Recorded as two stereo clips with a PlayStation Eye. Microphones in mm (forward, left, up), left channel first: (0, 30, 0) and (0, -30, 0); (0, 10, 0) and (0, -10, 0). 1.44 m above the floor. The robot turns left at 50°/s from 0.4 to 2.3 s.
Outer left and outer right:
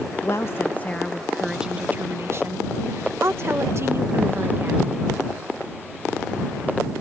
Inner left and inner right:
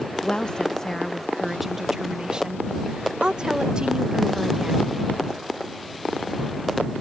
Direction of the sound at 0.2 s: 50° left.